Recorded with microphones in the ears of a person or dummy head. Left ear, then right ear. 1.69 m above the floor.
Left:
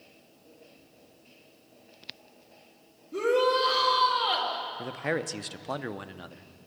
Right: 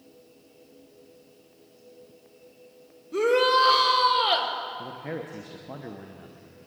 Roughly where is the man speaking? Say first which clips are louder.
Left 4 dB; left.